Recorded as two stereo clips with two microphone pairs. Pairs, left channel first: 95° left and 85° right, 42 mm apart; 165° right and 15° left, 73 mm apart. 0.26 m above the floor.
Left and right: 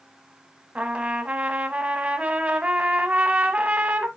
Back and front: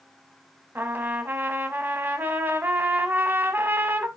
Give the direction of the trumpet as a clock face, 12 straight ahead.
1 o'clock.